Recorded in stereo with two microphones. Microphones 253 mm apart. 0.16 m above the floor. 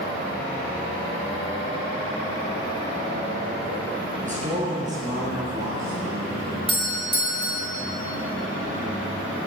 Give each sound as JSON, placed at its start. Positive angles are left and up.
{"t": 4.2, "sound": "a man speaking", "side_deg": -30, "distance_m": 2.5}
{"t": 6.7, "sound": "a doorbell", "side_deg": 20, "distance_m": 1.8}